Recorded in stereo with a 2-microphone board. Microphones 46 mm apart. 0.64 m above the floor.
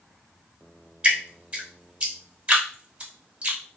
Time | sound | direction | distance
1.0 | dripping | 30° right (ahead or behind) | 0.9 m